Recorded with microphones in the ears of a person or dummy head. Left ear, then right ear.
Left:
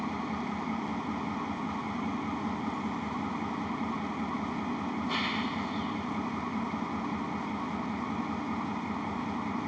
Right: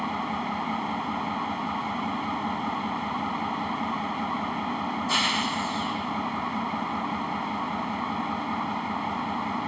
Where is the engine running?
45° right (ahead or behind).